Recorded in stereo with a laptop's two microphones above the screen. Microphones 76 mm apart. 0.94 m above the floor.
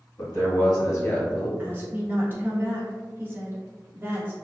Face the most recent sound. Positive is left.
turn(degrees=-30)  # may be behind; listen again after turning